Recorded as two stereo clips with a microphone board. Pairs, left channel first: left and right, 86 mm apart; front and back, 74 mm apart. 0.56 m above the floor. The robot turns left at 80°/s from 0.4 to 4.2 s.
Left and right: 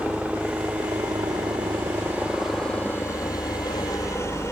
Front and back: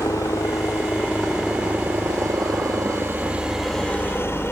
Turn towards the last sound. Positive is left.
turn(degrees=45)